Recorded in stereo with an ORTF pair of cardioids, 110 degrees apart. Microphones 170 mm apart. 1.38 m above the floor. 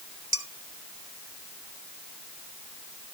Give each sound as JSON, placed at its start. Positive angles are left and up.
{"t": 0.3, "sound": "dishes clattering", "azimuth_deg": -20, "distance_m": 1.8}